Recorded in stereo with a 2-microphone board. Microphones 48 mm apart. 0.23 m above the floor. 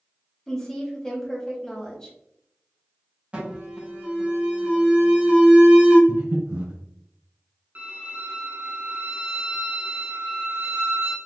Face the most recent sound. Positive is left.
turn(degrees=-40)  # may be behind; listen again after turning